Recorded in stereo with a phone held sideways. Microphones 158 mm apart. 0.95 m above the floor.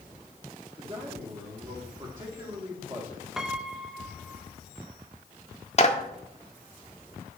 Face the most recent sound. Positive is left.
turn(degrees=45)  # may be behind; listen again after turning